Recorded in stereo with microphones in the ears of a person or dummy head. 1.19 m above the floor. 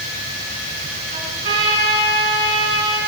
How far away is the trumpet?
About 3 m.